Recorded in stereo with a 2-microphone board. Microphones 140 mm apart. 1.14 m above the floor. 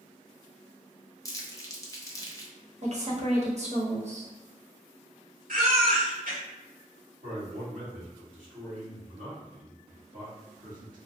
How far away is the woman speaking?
About 1.0 m.